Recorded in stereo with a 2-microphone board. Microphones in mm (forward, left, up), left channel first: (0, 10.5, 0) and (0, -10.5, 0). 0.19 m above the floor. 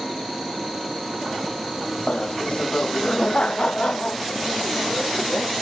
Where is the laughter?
55° left (ahead or behind).